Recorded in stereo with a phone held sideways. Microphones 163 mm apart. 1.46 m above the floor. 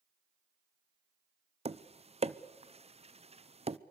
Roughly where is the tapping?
Right.